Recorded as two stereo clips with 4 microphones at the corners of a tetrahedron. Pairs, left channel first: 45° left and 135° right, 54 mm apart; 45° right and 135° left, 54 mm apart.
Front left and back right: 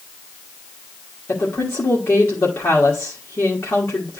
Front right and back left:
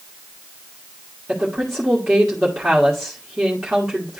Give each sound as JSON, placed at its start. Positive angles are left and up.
{"t": 1.3, "sound": "a woman speaking", "azimuth_deg": 50, "distance_m": 1.5}